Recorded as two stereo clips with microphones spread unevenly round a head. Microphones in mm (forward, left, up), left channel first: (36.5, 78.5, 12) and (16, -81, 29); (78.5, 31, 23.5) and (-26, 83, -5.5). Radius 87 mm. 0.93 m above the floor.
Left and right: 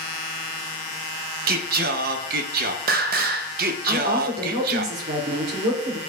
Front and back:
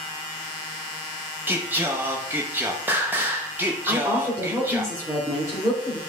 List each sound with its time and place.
1.5 s singing: 135° right, 0.5 m
3.9 s a woman speaking: 135° right, 2.5 m